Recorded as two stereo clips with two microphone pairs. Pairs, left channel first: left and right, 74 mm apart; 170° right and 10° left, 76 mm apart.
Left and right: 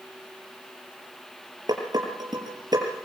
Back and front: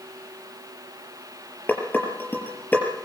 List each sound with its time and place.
1.7 s dishes clattering: 105° right, 5 m